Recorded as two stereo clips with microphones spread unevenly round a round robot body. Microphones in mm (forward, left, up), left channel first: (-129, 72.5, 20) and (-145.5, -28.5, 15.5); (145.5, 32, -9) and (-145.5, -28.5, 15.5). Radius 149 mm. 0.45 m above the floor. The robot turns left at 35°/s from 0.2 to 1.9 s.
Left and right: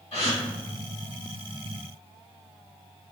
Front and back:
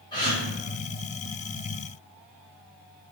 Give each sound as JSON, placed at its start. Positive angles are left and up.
{"t": 0.1, "sound": "a gasp", "azimuth_deg": 85, "distance_m": 1.3}